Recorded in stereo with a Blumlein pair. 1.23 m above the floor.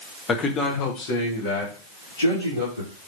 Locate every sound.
0.3 s a man speaking: 20° left, 0.9 m; by 2.9 s 65° left, 2.5 m